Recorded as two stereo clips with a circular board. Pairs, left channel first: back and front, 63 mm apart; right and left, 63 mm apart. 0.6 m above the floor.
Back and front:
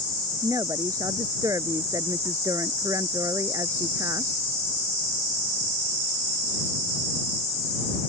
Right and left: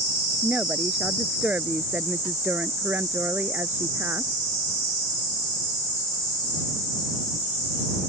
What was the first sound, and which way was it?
A woman speaking, 20° left.